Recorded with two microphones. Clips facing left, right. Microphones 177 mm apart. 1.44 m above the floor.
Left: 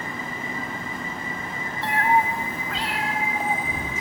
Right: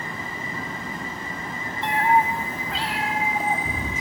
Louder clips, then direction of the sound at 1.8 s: Right 1 dB; 20° right (ahead or behind).